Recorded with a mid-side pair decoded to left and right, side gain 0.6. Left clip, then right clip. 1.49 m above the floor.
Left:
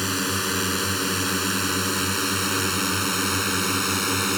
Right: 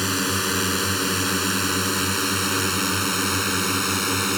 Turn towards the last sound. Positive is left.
turn(degrees=0)